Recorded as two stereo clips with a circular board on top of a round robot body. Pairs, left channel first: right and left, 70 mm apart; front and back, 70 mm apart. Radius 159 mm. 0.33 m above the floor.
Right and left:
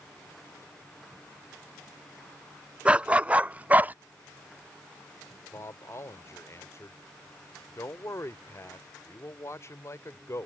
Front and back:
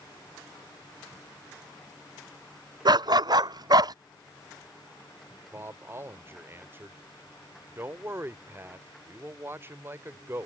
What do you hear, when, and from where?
2.9 s a dog barking: 165° left; by 4.0 s 155° left
5.5 s a man speaking: 130° right